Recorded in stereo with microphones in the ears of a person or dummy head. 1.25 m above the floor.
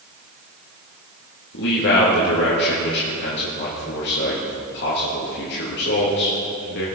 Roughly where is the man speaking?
Left.